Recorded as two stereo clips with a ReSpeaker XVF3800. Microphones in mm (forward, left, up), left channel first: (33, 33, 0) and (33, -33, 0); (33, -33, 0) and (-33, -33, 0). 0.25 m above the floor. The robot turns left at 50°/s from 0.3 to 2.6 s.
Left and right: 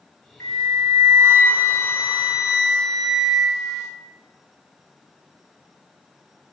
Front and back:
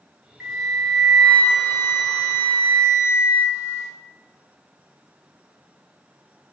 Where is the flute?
100° left, 1.3 m; by 3.9 s 10° right, 1.3 m.